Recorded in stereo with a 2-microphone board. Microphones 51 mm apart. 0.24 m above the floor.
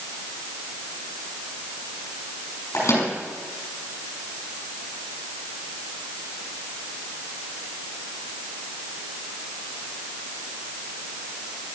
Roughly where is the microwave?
Left.